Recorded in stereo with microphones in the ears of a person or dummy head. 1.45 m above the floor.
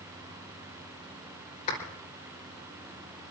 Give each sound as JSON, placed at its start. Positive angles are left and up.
{"t": 1.7, "sound": "a clap", "side_deg": 50, "distance_m": 5.5}